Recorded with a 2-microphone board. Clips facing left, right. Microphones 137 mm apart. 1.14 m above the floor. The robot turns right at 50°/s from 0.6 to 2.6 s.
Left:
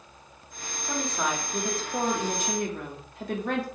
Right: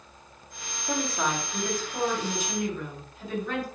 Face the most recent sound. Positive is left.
turn(degrees=70)